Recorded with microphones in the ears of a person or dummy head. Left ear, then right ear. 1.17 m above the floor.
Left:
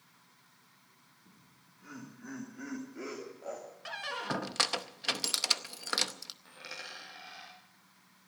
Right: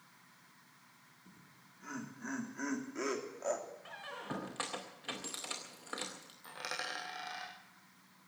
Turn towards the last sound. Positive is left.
turn(degrees=-40)  # may be behind; listen again after turning